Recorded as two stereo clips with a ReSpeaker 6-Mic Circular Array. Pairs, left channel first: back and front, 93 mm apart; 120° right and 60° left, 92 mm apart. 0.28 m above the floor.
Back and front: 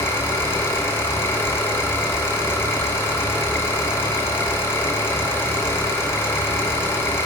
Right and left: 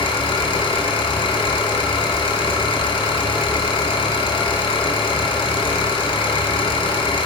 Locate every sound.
0.0 s an engine running: 120° right, 1.4 m